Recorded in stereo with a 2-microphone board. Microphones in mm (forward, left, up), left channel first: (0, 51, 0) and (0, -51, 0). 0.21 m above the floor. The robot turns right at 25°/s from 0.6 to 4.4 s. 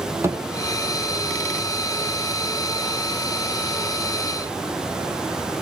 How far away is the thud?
About 3 m.